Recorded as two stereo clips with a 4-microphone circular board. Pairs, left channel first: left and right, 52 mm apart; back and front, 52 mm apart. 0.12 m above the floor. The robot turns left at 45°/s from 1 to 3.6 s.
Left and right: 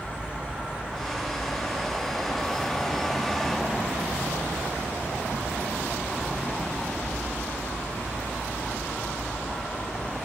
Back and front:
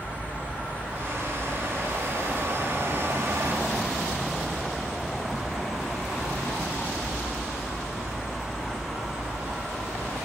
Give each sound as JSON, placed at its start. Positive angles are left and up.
{"t": 0.0, "sound": "an insect", "azimuth_deg": -150, "distance_m": 2.0}